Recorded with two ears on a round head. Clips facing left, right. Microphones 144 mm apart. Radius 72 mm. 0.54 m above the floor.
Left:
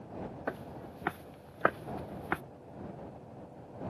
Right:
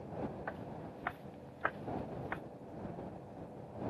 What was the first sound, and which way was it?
Footsteps, 55° left (ahead or behind).